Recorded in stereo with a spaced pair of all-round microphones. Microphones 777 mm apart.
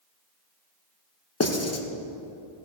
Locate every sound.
1.4 s writing: 20° left (ahead or behind), 1.0 m